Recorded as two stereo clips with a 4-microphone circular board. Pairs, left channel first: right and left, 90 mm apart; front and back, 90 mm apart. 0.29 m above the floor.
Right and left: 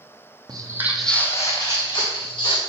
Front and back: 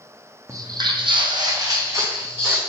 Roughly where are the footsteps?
Behind left.